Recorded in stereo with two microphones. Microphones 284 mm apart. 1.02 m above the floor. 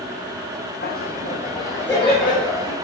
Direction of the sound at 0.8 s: 35° left (ahead or behind).